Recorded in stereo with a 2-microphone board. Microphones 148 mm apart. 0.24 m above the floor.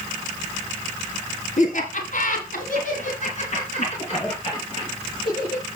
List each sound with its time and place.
1.6 s laughter: 55° left (ahead or behind), 2.5 m; by 5.6 s 30° left (ahead or behind), 4.5 m